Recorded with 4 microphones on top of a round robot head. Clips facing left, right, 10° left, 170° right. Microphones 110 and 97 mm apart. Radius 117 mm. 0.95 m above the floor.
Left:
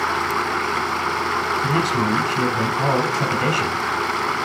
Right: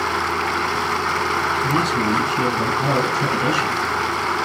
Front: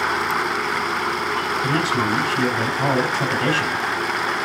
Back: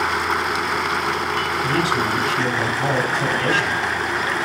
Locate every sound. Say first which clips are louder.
1.6 s a man speaking: left 1 dB, even; 70° left, 5 m